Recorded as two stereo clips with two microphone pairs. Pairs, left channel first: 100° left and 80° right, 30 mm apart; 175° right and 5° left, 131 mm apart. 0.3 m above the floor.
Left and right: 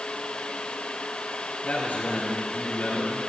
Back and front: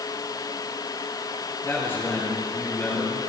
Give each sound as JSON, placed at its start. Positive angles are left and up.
{"t": 1.6, "sound": "a man speaking", "azimuth_deg": 115, "distance_m": 6.0}